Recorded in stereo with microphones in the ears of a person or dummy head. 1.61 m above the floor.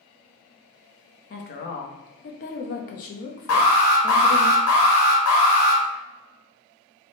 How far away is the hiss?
No hiss in this recording.